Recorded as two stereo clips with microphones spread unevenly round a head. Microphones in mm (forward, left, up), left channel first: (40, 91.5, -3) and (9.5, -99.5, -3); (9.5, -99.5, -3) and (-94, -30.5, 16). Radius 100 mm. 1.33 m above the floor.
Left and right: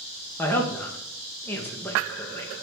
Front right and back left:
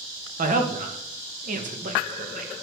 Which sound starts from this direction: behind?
A woman speaking, at 0.4 s.